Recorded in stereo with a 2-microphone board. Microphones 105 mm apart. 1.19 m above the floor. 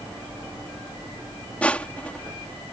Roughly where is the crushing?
Centre.